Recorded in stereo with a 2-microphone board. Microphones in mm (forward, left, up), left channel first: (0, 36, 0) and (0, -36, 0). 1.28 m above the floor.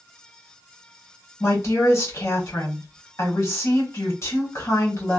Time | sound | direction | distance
1.4 | a woman speaking | 45° left (ahead or behind) | 1.5 m